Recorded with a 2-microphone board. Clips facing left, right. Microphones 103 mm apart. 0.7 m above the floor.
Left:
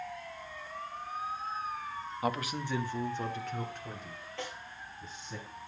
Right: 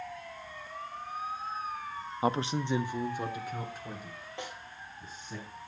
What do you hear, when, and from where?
2.2 s a man speaking: 25° right (ahead or behind), 0.6 m; by 5.4 s centre (ahead or behind), 4.5 m
4.4 s a snare drum: 15° right (ahead or behind), 4 m